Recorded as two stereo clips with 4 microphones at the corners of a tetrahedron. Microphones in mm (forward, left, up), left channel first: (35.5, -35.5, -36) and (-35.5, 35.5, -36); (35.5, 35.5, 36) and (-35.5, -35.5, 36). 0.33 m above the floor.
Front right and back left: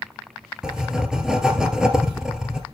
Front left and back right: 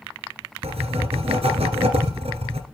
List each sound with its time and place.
0.6 s writing: 140° right, 2 m